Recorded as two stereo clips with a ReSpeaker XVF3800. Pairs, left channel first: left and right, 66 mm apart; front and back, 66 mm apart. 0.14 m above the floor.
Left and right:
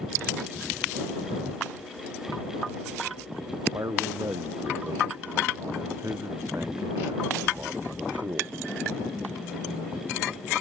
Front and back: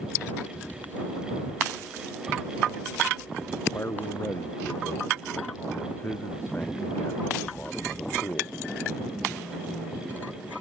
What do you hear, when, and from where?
3.7 s a man speaking: 50° right; by 8.6 s 55° right